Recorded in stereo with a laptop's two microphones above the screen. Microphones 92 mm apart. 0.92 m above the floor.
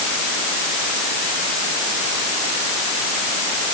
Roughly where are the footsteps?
I don't hear footsteps.